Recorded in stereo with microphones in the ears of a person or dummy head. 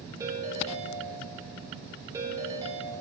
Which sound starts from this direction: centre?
A ringtone, at 0.2 s.